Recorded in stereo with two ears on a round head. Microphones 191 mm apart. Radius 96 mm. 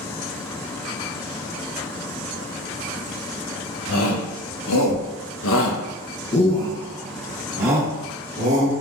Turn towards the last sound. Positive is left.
turn(degrees=-30)  # may be behind; listen again after turning